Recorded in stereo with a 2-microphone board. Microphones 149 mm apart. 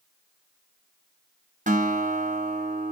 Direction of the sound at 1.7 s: 55° right (ahead or behind).